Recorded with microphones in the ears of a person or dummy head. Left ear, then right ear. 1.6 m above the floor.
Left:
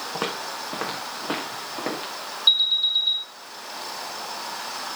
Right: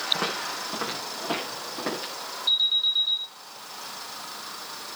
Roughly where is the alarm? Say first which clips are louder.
Left 3 dB; left.